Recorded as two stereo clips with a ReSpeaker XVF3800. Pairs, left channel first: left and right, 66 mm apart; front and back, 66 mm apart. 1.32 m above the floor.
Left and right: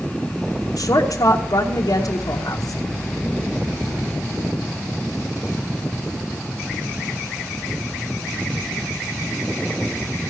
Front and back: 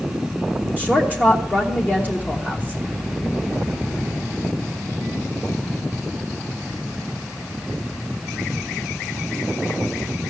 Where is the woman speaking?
65° left, 1.1 m.